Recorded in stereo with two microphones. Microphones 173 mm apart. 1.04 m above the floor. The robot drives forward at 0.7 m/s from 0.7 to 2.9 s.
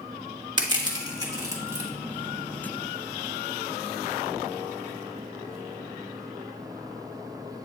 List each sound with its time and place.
0.6 s crushing: 25° right (ahead or behind), 1.4 m; by 1.9 s 15° right (ahead or behind), 2 m